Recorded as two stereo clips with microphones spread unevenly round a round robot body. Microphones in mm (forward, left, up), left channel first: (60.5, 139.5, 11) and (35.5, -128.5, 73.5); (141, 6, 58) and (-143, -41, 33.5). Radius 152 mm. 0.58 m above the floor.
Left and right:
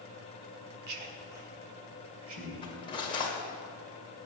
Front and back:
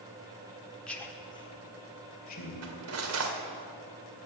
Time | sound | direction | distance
0.9 | a man speaking | 80° right | 1.5 m
2.6 | cutlery clinking | 155° left | 1.5 m